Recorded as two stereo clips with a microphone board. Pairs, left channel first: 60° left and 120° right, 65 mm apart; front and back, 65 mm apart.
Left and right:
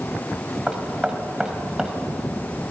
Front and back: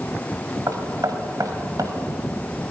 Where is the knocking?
165° left, 1.9 m.